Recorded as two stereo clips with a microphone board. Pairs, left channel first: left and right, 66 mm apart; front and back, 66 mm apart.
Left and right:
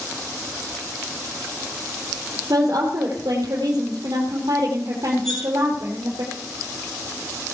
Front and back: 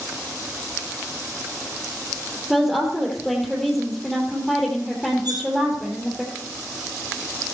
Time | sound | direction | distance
2.5 | a woman speaking | 90° right | 3 m
5.2 | cutlery clinking | 170° left | 3.5 m